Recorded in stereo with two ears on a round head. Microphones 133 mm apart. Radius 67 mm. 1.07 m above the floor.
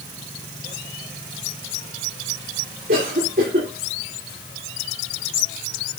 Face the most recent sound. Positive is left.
turn(degrees=-60)  # may be behind; listen again after turning